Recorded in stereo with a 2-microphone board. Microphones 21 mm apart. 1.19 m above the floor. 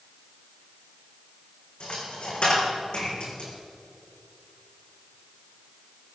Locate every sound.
1.8 s a dropped coin: 70° left (ahead or behind), 4.5 m